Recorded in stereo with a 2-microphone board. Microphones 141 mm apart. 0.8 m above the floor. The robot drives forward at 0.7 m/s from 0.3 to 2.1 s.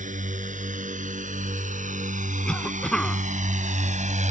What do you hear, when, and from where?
0.0 s a drone: 65° right (ahead or behind); by 4.3 s 60° right (ahead or behind)
2.5 s a cough: 5° left (ahead or behind)